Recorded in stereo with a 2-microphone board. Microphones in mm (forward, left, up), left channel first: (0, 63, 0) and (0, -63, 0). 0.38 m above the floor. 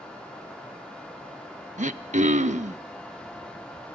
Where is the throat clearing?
70° right (ahead or behind), 0.6 m.